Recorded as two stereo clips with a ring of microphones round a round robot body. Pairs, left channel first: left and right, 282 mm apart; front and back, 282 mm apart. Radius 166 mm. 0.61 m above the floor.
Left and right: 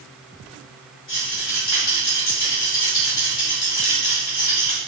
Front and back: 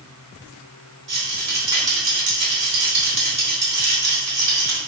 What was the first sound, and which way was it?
A rattle, 135° left.